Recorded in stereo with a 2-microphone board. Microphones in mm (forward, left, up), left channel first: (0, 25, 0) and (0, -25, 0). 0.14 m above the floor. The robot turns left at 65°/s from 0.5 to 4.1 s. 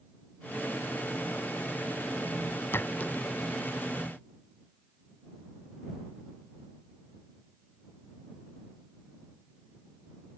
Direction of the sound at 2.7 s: 50° left (ahead or behind).